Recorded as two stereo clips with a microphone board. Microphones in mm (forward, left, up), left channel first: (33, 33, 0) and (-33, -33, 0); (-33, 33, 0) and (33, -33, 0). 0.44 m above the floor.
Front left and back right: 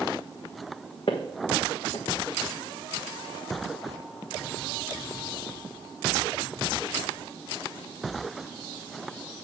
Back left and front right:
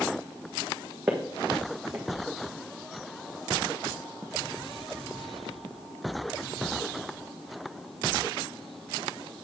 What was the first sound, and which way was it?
Footsteps, 25° left.